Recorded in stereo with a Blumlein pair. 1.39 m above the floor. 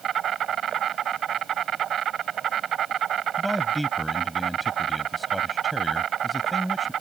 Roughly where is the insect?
Ahead right.